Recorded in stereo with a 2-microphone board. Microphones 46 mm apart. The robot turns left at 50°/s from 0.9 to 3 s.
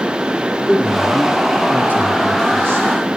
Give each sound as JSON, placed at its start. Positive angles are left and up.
{"t": 0.7, "sound": "a man speaking", "azimuth_deg": -5, "distance_m": 1.8}